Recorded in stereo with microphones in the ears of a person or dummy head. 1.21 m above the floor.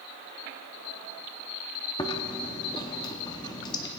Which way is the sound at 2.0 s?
15° left (ahead or behind).